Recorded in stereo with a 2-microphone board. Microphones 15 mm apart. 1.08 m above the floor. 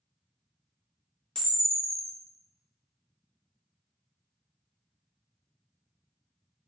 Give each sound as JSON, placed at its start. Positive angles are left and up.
{"t": 1.4, "sound": "a camera shutter", "side_deg": 80, "distance_m": 0.7}